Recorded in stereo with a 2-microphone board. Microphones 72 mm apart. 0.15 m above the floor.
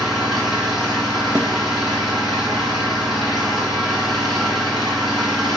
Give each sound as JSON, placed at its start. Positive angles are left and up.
{"t": 0.0, "sound": "an engine running", "side_deg": 0, "distance_m": 5.0}
{"t": 1.4, "sound": "a snare drum", "side_deg": -35, "distance_m": 0.8}